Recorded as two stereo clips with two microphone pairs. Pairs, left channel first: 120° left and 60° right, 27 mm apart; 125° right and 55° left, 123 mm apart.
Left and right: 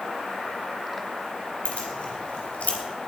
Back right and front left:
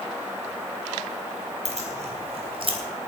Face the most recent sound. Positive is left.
turn(degrees=95)